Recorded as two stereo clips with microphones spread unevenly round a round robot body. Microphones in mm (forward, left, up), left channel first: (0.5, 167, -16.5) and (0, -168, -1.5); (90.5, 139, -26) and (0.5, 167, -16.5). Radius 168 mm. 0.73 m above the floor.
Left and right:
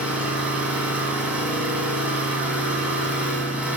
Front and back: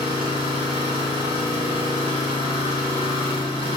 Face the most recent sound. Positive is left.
turn(degrees=-175)